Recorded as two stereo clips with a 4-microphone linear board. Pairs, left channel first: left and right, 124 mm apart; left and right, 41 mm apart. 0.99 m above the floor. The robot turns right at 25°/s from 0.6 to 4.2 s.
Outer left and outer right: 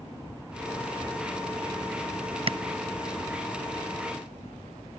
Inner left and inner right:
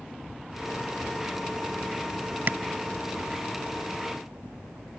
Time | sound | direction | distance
2.5 | tapping | 45° right (ahead or behind) | ?